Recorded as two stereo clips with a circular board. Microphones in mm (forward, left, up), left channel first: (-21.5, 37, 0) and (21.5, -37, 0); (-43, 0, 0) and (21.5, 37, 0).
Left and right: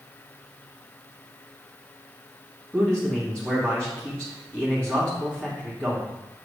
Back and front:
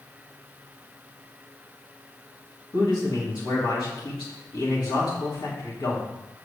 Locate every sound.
2.7 s a man speaking: 160° right, 2.5 m